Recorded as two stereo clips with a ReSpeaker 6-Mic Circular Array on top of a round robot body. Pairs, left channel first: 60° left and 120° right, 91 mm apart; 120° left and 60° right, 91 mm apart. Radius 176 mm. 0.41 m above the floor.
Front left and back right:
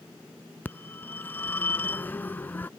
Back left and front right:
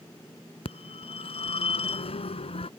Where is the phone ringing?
130° left.